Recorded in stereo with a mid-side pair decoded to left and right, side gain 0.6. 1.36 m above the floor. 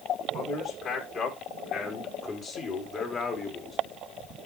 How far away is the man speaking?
About 5 m.